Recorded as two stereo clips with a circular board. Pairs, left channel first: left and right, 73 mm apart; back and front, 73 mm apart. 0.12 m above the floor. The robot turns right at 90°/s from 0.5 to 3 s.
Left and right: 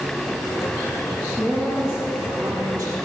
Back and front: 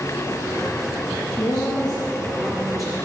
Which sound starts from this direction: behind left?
A woman speaking, at 1.4 s.